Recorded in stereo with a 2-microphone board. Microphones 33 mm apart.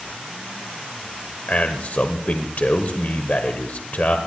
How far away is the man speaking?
About 1.1 m.